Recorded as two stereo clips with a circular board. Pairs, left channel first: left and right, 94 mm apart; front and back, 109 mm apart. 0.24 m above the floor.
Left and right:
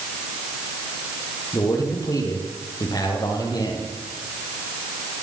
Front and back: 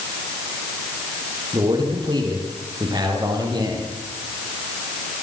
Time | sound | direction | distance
1.5 | a man speaking | 135° left | 9 m